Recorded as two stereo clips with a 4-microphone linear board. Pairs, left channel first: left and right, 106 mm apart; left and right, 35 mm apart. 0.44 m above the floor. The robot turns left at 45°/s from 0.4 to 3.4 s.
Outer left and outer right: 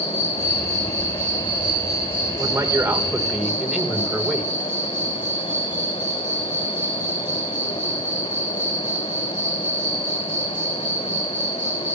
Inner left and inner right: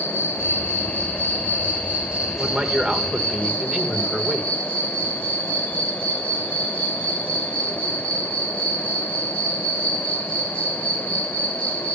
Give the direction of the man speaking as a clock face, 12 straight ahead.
4 o'clock.